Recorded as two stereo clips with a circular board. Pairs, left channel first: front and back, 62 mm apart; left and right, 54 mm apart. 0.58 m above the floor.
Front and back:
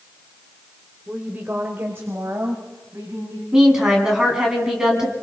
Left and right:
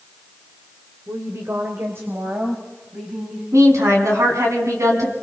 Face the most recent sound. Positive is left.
turn(degrees=-100)